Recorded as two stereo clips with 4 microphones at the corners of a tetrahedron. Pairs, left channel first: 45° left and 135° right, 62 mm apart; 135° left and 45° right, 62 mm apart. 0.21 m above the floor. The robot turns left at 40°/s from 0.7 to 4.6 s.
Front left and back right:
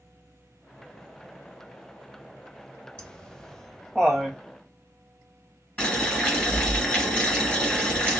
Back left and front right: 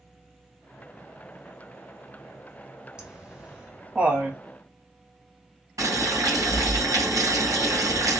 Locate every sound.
3.0 s laughter: straight ahead, 1.0 m; by 4.4 s 55° right, 1.0 m
5.8 s boiling: 20° right, 2 m